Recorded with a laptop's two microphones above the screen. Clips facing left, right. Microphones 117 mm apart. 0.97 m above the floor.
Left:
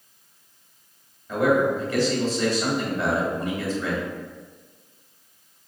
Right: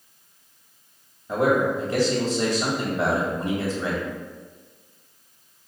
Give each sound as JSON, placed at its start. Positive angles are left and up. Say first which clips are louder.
{"t": 1.3, "sound": "a man speaking", "louder": "even", "side_deg": -35, "distance_m": 1.5}